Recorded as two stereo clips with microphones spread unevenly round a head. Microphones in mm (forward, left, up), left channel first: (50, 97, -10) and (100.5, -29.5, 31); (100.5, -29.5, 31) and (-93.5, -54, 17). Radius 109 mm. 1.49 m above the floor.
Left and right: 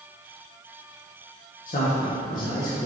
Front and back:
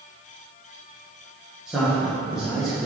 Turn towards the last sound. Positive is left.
turn(degrees=100)